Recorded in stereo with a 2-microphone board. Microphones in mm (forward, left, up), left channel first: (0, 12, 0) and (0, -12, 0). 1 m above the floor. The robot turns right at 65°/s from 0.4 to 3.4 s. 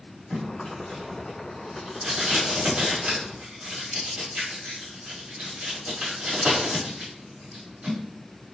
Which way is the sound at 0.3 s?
60° left (ahead or behind).